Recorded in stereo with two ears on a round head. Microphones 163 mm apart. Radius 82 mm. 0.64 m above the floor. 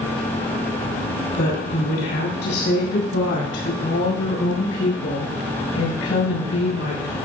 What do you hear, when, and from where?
1.4 s a woman speaking: 60° left (ahead or behind), 4.5 m; by 7.2 s 85° left, 7 m